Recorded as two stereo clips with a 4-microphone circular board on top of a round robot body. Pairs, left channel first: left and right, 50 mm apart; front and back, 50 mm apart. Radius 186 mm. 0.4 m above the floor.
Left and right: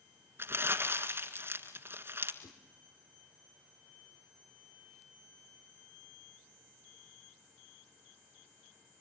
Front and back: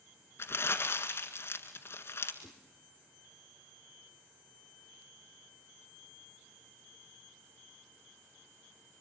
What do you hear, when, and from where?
0.4 s crumpling: 45° right, 1.8 m
2.4 s a whoosh: 60° left, 3 m